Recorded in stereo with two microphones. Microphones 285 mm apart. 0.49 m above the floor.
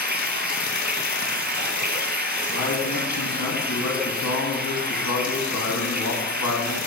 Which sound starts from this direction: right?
Running water, at 0.0 s.